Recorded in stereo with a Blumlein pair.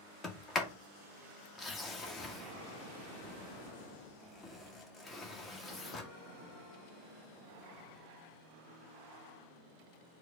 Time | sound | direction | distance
0.2 | a sliding door | 15° left | 1.2 m